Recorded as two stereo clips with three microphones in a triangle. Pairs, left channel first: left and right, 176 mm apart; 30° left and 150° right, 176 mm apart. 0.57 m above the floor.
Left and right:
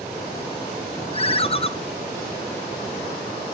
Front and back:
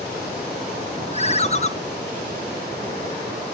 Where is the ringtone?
55° left, 0.6 m.